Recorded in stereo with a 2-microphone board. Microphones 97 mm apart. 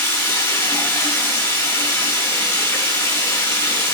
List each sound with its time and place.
0.0 s running water: 25° left (ahead or behind), 7.5 m